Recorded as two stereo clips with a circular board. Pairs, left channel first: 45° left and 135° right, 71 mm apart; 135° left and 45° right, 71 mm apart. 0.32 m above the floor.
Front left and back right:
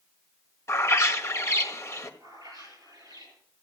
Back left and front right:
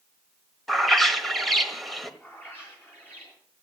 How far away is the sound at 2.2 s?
About 8.5 m.